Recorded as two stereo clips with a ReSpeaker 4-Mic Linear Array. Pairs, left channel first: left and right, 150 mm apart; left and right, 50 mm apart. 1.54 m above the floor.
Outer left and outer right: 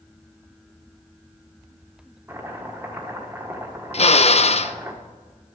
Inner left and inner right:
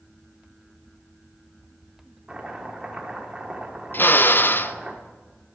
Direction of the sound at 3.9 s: 45° left (ahead or behind).